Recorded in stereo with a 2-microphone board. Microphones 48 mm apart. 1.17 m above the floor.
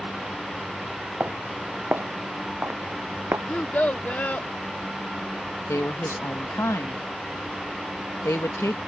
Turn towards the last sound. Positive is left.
turn(degrees=70)  # may be behind; listen again after turning